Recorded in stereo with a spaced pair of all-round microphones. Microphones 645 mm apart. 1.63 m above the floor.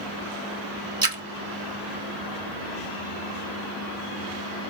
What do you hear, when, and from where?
1.0 s a splash: 35° right (ahead or behind), 0.8 m